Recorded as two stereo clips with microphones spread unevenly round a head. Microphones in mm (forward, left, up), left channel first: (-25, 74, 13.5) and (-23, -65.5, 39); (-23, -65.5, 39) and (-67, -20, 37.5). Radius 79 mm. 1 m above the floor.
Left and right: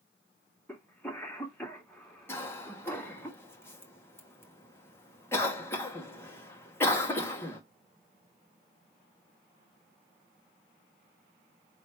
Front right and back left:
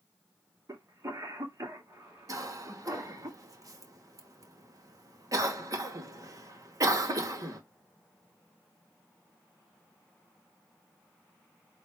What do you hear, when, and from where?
0.7 s a cough: 170° left, 2.5 m
2.3 s a cough: 160° left, 1.8 m